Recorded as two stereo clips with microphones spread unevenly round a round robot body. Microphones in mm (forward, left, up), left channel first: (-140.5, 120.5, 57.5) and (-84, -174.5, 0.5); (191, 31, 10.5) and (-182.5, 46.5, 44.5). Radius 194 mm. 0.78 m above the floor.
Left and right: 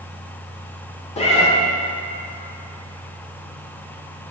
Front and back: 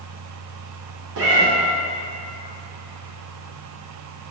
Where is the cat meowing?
150° left, 0.5 m.